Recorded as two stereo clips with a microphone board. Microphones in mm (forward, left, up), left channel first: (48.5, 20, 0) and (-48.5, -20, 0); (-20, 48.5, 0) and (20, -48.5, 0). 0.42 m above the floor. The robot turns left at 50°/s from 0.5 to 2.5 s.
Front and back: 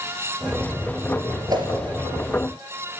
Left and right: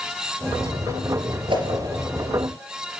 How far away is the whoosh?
About 3.5 m.